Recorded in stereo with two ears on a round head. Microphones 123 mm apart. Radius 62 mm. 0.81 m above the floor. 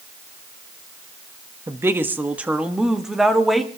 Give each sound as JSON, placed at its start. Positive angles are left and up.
{"t": 1.7, "sound": "a woman speaking", "side_deg": -20, "distance_m": 1.2}